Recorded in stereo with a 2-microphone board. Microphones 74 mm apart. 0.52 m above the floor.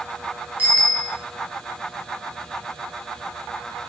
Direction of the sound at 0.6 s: 20° right (ahead or behind).